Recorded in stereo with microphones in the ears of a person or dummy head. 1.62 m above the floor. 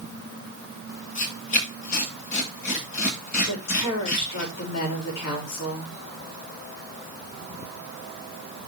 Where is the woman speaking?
85° left, 4.5 m.